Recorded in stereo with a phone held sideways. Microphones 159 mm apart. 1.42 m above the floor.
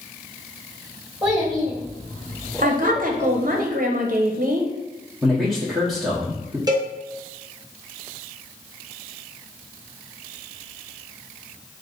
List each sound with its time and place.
1.2 s a child speaking: centre (ahead or behind), 1.9 m; by 3.6 s 50° left (ahead or behind), 1.8 m
2.6 s a woman speaking: 60° right (ahead or behind), 0.7 m
5.2 s a man speaking: centre (ahead or behind), 1.0 m
6.7 s a cowbell: 25° right (ahead or behind), 0.8 m